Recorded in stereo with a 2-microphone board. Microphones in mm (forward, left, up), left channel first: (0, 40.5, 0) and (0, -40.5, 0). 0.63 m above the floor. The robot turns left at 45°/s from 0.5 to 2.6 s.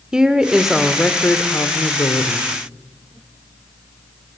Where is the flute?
I don't hear a flute.